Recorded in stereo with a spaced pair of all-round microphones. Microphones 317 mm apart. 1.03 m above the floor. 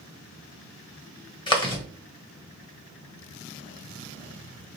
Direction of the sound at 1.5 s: 15° left (ahead or behind).